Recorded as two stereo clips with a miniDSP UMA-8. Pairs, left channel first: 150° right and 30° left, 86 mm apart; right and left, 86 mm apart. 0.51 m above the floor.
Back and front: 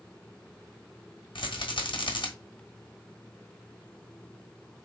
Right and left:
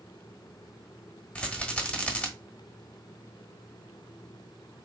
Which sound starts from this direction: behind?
A rattle, at 1.4 s.